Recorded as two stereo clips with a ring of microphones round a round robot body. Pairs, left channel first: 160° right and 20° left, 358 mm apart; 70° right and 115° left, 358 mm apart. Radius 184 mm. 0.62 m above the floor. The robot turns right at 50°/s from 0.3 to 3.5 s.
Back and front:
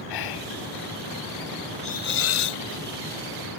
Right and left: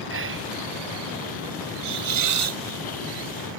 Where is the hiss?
130° left; by 2.6 s 170° left.